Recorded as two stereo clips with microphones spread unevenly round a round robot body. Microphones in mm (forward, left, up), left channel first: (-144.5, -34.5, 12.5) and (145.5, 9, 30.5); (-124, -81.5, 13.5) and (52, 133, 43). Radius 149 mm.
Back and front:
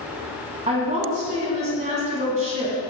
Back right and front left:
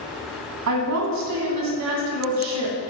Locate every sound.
0.7 s a woman speaking: 75° left, 3 m